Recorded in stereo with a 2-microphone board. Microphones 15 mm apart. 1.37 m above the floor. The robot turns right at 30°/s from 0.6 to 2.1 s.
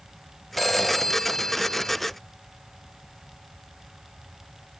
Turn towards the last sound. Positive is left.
turn(degrees=50)